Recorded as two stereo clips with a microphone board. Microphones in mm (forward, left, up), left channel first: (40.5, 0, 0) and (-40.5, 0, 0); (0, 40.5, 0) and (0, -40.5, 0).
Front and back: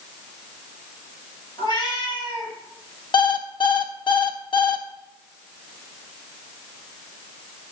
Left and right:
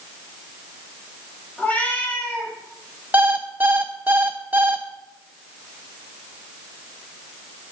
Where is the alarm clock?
20° right, 0.9 m.